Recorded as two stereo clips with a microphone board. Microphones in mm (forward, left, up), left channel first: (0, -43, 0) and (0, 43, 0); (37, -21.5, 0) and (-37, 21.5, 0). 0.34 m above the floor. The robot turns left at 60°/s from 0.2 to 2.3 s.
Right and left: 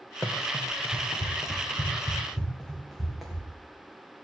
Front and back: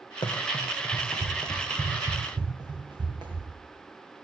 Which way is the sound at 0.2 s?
10° right.